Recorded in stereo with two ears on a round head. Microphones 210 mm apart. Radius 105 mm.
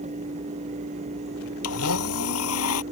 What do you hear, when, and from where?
1.6 s a blender: 65° left (ahead or behind)